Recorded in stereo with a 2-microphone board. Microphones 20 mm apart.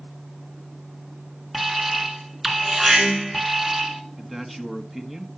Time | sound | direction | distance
1.5 | an alarm | 10° right (ahead or behind) | 2 m
4.2 | a man speaking | 10° right (ahead or behind) | 1.6 m